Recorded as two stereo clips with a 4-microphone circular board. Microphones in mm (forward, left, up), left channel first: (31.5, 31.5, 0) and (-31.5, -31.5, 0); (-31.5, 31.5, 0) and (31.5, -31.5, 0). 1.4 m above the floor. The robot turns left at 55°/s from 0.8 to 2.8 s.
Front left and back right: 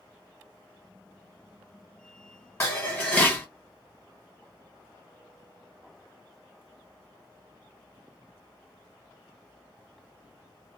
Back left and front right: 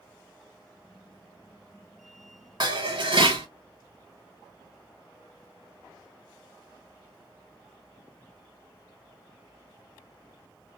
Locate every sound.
2.6 s dishes clattering: 15° right, 1.2 m; by 3.5 s 25° right, 1.2 m